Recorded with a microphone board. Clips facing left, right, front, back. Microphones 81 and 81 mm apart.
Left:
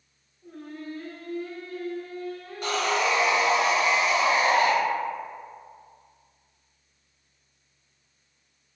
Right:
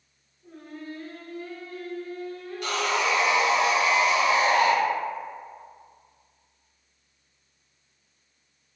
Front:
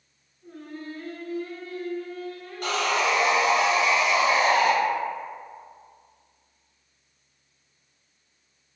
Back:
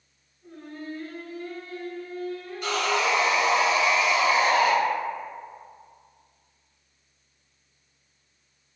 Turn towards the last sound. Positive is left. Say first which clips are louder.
# left 1 dB, front 1 dB
turn(degrees=40)